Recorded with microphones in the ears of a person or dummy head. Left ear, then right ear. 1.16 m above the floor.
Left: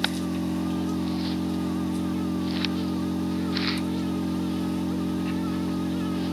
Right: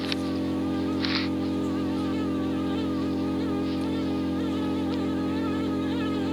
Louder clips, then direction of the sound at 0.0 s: Even; 70° left (ahead or behind).